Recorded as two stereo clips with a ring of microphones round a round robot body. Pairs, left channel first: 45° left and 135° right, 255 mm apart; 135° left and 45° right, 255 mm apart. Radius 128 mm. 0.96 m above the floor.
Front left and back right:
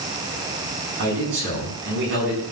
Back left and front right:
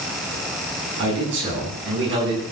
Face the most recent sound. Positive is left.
turn(degrees=-90)